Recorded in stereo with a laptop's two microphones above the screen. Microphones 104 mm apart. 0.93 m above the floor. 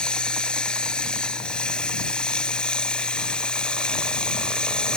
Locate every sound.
0.0 s running water: 10° left (ahead or behind)